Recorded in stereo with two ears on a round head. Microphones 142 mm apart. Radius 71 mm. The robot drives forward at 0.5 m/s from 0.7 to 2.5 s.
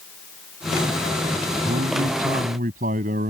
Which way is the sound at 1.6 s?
55° right (ahead or behind).